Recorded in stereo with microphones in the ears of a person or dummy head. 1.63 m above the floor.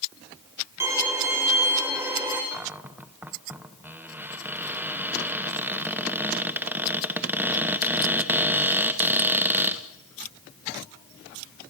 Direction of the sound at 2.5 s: 15° right (ahead or behind).